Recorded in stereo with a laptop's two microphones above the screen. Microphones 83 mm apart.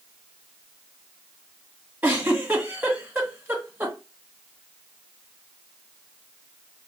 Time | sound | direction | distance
2.0 | a giggle | 25° right (ahead or behind) | 1.6 m